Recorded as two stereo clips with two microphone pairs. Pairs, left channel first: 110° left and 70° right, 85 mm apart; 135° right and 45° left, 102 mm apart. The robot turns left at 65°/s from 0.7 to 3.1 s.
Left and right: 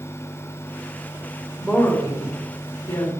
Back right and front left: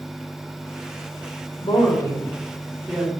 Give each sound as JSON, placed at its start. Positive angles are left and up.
{"t": 1.6, "sound": "a woman speaking", "azimuth_deg": -160, "distance_m": 2.0}